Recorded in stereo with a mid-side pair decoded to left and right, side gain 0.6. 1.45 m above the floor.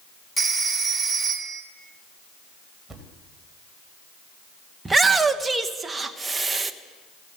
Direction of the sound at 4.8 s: 20° right.